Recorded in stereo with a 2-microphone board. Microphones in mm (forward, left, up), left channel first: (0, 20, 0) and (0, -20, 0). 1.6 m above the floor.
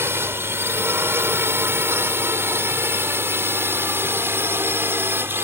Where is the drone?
80° right; by 5.4 s 70° right (ahead or behind).